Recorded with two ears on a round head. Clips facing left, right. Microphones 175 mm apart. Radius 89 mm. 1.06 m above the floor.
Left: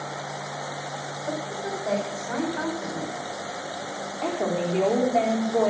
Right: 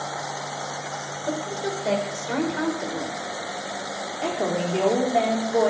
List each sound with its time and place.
1.3 s a woman speaking: 30° right (ahead or behind), 4.5 m
4.2 s a woman speaking: 5° right (ahead or behind), 3.5 m